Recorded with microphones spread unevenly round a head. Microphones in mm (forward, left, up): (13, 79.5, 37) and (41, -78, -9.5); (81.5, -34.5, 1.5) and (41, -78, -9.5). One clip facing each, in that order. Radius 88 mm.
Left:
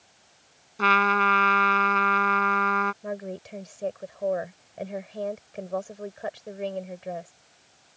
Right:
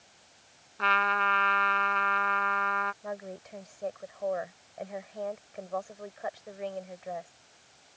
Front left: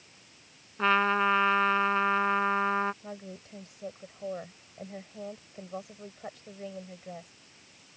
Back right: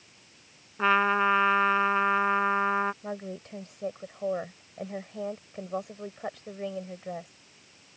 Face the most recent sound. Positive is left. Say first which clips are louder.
# left 5 dB, back right 6 dB
turn(degrees=155)